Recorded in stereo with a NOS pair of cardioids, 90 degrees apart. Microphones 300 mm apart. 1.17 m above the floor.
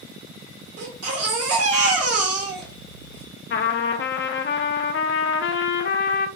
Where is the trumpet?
40° left, 0.5 m.